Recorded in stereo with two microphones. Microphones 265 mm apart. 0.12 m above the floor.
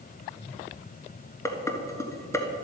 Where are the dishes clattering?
10° left (ahead or behind), 1.3 m.